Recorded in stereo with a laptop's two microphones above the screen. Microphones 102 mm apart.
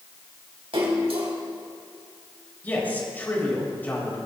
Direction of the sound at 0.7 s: 75° right (ahead or behind).